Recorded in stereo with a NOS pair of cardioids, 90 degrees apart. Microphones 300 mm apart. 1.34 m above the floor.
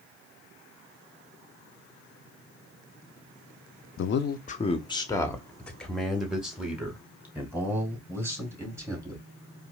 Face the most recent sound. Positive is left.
turn(degrees=-10)